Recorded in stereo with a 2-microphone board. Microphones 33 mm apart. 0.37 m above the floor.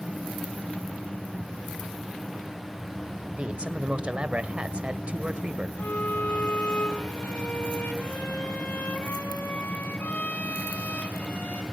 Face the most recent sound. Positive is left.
turn(degrees=70)  # may be behind; listen again after turning